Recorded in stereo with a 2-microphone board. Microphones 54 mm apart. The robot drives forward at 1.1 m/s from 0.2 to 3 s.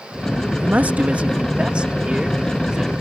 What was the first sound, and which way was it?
A man speaking, 35° right (ahead or behind).